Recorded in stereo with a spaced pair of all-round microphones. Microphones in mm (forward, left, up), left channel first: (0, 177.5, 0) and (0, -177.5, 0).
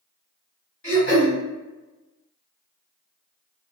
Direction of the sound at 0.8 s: 35° left (ahead or behind).